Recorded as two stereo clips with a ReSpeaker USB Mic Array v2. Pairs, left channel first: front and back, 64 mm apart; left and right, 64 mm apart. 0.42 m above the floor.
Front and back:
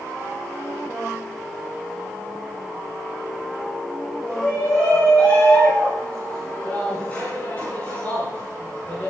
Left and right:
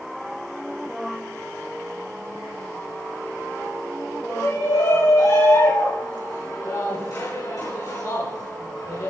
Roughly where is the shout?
Left.